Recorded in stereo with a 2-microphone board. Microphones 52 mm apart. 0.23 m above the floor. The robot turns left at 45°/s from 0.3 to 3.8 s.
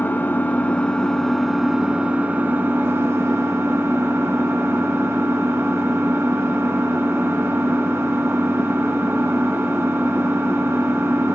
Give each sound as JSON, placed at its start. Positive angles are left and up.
{"t": 0.0, "sound": "an engine running", "azimuth_deg": 50, "distance_m": 1.1}